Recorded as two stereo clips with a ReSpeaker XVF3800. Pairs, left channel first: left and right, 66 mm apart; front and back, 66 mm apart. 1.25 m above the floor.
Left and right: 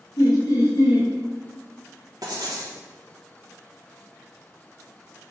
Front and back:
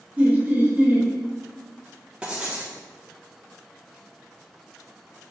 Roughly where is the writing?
Right.